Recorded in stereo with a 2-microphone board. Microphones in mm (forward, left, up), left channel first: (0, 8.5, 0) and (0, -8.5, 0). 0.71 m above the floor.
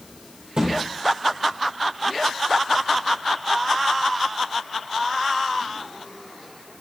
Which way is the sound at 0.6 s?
55° right (ahead or behind).